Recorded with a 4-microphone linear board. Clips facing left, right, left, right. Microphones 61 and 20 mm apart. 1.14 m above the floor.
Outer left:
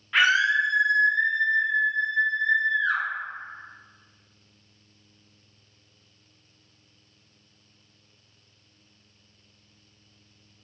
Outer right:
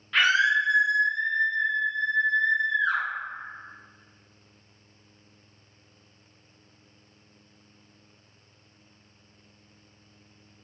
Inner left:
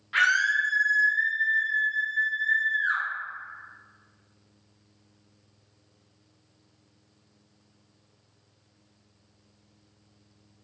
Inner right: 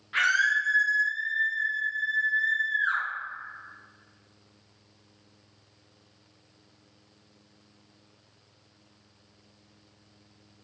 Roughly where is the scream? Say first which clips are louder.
Outer left 1 dB, inner left 1 dB; centre.